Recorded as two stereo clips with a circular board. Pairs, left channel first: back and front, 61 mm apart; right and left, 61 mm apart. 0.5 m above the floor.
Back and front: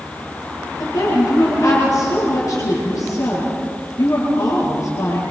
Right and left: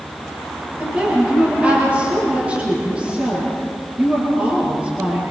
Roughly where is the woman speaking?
Behind.